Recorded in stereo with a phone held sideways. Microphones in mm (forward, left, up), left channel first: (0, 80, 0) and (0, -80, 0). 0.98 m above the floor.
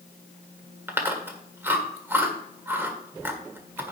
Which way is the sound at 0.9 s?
15° right (ahead or behind).